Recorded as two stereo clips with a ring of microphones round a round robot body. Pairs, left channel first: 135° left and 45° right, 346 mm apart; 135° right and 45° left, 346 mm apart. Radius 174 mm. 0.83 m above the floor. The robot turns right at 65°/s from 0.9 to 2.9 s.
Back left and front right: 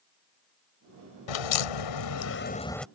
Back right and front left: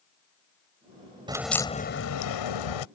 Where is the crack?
120° left; by 2.9 s 135° right.